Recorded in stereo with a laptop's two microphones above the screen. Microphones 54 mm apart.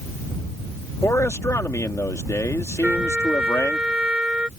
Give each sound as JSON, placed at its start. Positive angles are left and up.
{"t": 1.0, "sound": "a man speaking", "side_deg": 60}
{"t": 2.8, "sound": "a trumpet", "side_deg": -20}